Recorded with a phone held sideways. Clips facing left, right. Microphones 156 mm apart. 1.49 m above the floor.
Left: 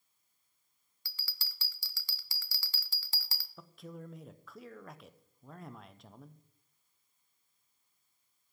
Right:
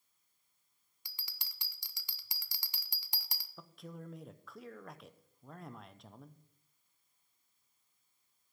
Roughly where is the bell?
Centre.